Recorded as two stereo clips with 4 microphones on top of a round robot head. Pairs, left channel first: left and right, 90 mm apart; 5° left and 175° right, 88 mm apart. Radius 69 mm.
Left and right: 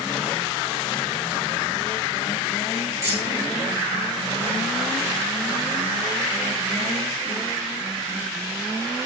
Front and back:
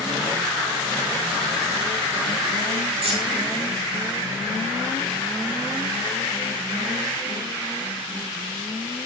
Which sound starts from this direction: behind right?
Keys jangling, at 3.0 s.